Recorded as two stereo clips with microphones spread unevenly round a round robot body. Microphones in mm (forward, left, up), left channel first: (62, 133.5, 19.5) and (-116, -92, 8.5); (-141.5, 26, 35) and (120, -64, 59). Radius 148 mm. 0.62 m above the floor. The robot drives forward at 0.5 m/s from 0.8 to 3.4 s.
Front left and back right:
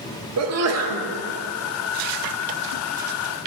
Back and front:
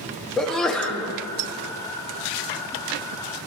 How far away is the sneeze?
About 0.9 m.